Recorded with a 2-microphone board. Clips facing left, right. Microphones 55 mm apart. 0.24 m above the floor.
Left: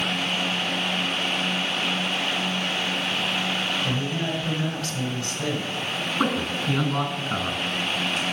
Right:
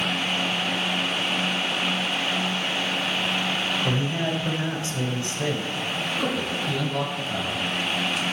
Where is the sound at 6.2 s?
55° left (ahead or behind), 3 m.